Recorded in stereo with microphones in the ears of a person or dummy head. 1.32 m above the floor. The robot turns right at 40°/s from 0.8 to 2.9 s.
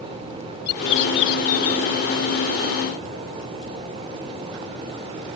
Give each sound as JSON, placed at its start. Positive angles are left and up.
{"t": 0.7, "sound": "a bird", "azimuth_deg": 65}